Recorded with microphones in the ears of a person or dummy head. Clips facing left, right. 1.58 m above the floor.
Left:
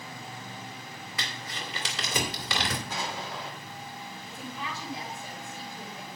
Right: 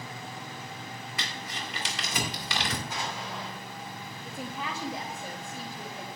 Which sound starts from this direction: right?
A woman speaking, at 4.2 s.